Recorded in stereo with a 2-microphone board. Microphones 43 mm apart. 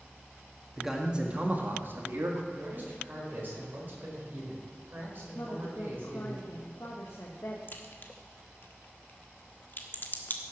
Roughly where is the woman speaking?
Left.